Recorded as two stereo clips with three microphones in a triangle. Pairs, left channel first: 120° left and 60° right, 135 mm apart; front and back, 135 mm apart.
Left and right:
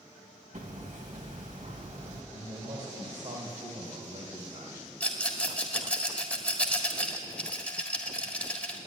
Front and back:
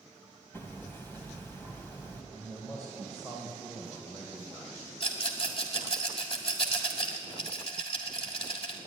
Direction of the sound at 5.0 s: 40° left.